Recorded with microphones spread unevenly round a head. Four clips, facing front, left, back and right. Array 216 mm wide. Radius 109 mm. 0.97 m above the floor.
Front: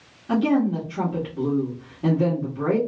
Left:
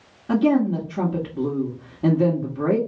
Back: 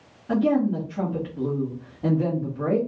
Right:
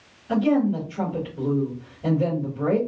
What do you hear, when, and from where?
0.3 s a woman speaking: 65° left, 1.3 m